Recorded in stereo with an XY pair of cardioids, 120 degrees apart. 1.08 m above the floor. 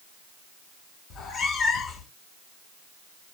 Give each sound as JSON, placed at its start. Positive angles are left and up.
{"t": 1.1, "sound": "a cat meowing", "azimuth_deg": 60, "distance_m": 1.5}